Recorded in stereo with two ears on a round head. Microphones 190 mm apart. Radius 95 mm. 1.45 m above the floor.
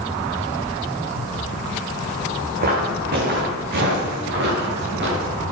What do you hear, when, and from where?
2.6 s footsteps: 45° right (ahead or behind), 4.5 m; by 5.3 s 55° right (ahead or behind), 8 m